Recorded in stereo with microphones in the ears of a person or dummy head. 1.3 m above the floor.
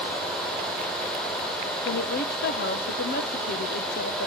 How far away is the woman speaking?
About 1.1 m.